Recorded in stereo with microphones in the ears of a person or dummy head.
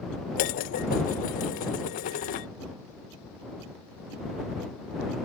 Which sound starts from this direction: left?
Dishes clattering, at 0.4 s.